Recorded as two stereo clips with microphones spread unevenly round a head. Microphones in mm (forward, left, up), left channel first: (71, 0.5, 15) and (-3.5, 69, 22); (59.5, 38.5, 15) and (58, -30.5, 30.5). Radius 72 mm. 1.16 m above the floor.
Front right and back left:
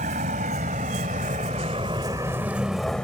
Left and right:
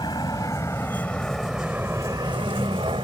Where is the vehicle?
155° left; by 3.0 s 130° right.